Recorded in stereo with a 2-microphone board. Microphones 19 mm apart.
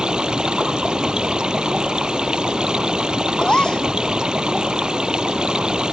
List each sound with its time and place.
0.0 s running water: 50° right (ahead or behind)
3.4 s a gasp: 45° left (ahead or behind)